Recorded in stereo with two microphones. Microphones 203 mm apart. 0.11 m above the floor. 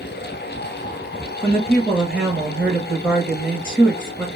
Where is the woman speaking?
10° right (ahead or behind), 1.1 m.